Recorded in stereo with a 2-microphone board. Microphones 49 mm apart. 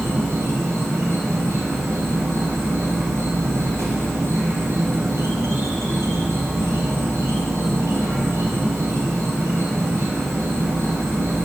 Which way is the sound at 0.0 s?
85° right.